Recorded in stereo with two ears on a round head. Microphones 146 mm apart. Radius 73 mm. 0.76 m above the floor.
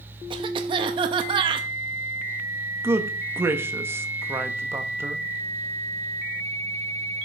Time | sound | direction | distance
0.3 | a cough | 30° right (ahead or behind) | 0.6 m
2.8 | a man speaking | 15° right (ahead or behind) | 0.9 m